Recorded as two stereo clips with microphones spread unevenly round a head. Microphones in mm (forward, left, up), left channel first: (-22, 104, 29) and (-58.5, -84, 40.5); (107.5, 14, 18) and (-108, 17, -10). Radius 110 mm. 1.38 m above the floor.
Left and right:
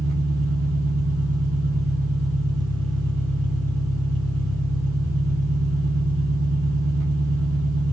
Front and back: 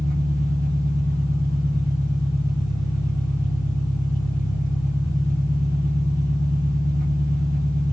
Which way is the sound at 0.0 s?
105° right.